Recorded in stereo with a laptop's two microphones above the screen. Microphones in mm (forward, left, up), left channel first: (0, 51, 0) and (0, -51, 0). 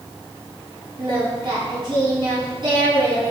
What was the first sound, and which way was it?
Singing, 45° right (ahead or behind).